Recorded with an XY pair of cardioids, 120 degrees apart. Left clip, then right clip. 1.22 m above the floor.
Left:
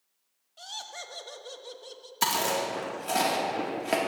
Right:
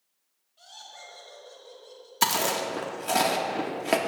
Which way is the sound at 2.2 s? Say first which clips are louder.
Right 2 dB; 20° right.